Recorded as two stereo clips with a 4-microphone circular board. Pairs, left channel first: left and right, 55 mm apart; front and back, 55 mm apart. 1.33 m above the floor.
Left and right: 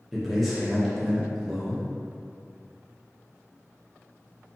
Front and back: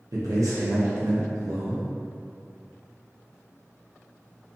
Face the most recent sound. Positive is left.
turn(degrees=180)